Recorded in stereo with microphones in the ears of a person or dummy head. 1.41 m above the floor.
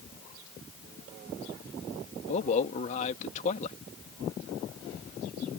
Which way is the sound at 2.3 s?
40° left (ahead or behind).